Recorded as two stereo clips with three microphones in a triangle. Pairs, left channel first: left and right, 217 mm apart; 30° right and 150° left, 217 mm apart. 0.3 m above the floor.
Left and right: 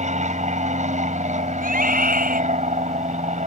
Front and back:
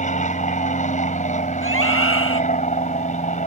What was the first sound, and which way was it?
An aircraft, 60° right.